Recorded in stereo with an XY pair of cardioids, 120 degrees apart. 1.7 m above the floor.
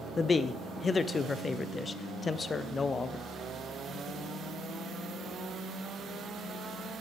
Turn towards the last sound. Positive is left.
turn(degrees=30)